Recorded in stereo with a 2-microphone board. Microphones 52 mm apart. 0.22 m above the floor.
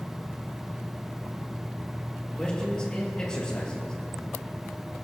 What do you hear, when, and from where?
2.4 s a man speaking: 15° left (ahead or behind), 4 m